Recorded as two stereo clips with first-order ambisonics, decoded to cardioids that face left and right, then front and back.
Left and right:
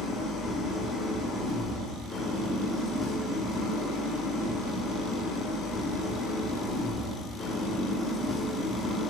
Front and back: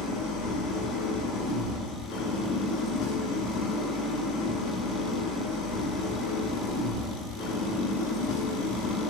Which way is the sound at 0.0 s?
5° left.